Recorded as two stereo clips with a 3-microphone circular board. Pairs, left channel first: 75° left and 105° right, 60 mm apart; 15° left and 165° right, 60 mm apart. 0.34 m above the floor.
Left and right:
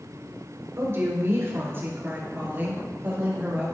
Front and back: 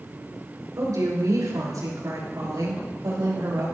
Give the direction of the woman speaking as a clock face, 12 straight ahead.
5 o'clock.